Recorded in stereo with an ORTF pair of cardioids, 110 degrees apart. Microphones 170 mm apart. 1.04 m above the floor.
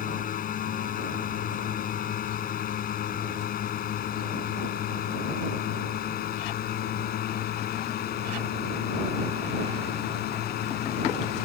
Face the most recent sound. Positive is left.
turn(degrees=65)